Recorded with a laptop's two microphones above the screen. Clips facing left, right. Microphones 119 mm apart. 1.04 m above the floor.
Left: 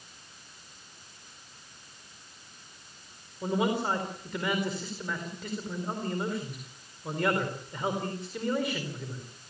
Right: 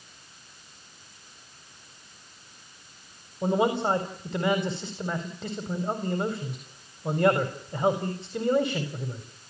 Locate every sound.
3.4 s a man speaking: 30° right (ahead or behind), 4.5 m